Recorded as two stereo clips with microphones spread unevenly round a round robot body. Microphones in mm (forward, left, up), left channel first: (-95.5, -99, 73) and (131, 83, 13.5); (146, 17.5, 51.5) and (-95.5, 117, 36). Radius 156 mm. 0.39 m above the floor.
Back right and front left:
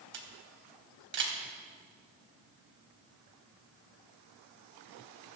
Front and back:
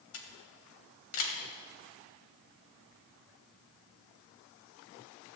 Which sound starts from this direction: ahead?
A camera shutter, at 0.1 s.